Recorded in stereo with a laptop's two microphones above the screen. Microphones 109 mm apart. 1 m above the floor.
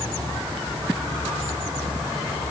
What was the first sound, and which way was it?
Only background noise.